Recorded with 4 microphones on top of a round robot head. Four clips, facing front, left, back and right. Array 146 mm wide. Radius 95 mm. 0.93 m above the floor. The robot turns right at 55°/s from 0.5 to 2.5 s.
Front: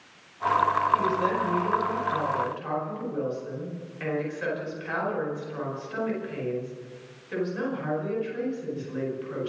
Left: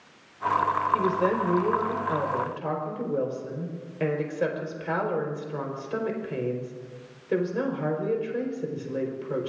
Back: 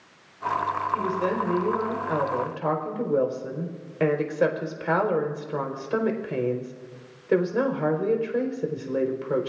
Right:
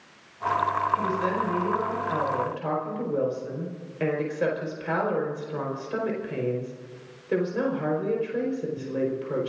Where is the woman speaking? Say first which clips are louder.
Left 2 dB, front 1 dB; 90° left, 4.5 m; by 9.5 s 175° left, 4.5 m.